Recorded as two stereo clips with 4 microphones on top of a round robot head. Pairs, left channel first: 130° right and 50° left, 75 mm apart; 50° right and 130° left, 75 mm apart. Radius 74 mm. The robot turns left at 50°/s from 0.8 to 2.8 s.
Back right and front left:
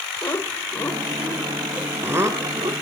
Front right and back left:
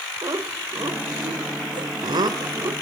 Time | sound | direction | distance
0.2 | laughter | 175° left | 3 m